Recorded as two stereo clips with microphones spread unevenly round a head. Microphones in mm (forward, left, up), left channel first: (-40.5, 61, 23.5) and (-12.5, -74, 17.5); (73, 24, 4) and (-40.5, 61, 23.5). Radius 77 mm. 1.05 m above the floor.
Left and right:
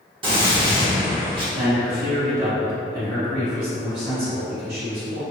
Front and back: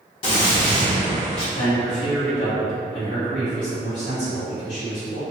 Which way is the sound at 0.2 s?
35° right.